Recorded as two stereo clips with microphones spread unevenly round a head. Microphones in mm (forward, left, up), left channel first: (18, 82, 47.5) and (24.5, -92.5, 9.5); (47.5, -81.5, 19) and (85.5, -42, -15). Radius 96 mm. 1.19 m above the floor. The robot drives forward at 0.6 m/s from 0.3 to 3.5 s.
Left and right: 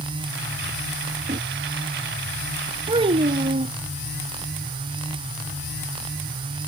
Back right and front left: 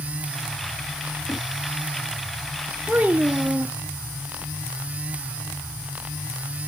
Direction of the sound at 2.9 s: 25° right.